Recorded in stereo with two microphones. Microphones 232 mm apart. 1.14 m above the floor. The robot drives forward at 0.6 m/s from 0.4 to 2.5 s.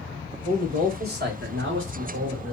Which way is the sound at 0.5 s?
35° right (ahead or behind).